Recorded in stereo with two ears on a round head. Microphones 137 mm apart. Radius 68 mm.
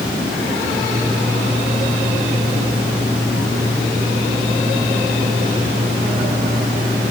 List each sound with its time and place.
Only background noise.